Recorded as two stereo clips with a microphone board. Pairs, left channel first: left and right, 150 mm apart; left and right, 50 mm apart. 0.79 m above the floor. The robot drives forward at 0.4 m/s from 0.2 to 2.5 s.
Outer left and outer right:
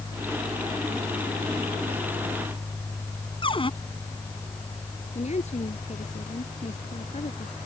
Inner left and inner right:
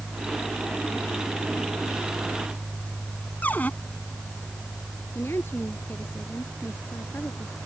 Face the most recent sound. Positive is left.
turn(degrees=50)  # may be behind; listen again after turning